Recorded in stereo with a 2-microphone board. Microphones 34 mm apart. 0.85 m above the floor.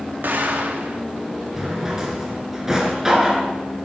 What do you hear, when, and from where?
0.2 s an explosion: 65° right (ahead or behind), 2.0 m
1.6 s a drawer: 15° right (ahead or behind), 3 m